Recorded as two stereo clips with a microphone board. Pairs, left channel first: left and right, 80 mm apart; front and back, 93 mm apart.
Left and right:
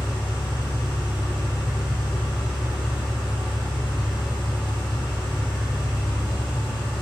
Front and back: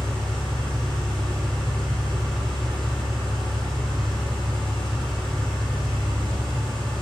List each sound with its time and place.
0.0 s an engine running: 85° left, 3.5 m